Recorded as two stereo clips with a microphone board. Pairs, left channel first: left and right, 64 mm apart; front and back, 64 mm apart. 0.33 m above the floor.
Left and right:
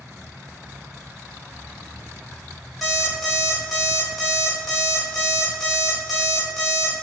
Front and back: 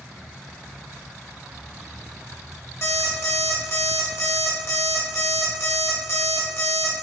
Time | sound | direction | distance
2.8 | an alarm clock | straight ahead | 0.9 m